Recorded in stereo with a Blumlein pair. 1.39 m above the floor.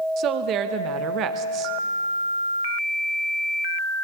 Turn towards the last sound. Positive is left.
turn(degrees=-35)